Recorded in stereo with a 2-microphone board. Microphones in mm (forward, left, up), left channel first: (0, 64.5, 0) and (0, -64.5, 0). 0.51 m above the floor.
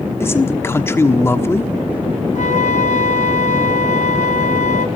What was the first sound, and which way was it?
A man speaking, 20° left (ahead or behind).